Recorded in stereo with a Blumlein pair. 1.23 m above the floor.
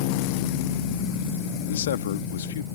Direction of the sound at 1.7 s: 60° left.